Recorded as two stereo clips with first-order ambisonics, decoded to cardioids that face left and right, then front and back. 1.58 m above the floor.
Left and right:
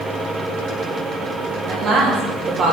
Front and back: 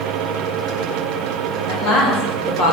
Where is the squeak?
No squeak in this recording.